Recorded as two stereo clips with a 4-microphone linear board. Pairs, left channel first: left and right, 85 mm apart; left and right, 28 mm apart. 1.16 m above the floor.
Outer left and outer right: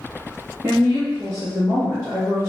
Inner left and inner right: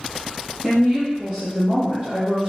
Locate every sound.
0.6 s a woman speaking: 30° right (ahead or behind), 1.4 m